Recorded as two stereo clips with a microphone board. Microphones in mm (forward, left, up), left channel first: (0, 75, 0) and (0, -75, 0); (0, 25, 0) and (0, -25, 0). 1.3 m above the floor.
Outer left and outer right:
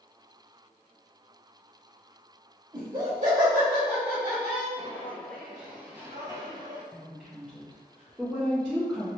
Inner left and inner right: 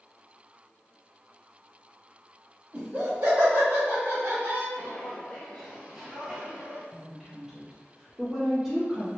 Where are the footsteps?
20° left (ahead or behind), 1.3 m; by 6.8 s 35° right (ahead or behind), 1.5 m.